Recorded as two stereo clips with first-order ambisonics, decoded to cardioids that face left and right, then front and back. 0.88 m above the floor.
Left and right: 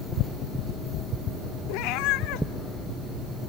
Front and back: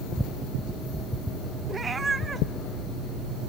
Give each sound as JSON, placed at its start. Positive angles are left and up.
{"t": 1.7, "sound": "a cat meowing", "azimuth_deg": 105, "distance_m": 0.7}